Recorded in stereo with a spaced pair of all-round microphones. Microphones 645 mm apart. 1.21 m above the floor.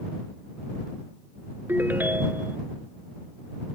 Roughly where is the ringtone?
Centre.